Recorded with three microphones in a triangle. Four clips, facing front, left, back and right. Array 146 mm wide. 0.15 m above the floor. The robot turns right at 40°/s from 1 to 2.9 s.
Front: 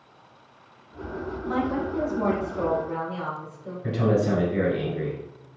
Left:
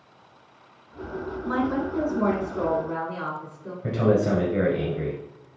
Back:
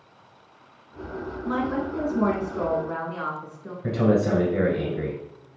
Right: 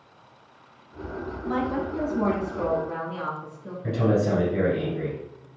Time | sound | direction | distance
1.4 | a woman speaking | 110° left | 1.8 m
3.8 | a man speaking | 140° left | 1.7 m